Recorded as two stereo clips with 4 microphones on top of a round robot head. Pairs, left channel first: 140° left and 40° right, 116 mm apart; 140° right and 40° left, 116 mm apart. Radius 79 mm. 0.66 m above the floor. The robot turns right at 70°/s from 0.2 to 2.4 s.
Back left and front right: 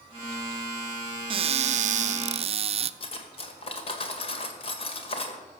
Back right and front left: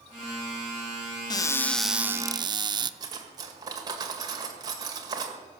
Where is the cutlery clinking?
100° left, 1.9 m.